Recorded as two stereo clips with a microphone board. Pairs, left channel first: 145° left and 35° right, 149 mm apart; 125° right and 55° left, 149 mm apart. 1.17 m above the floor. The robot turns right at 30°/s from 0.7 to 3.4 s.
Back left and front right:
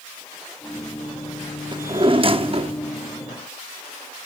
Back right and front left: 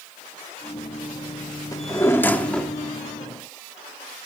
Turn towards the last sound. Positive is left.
turn(degrees=-20)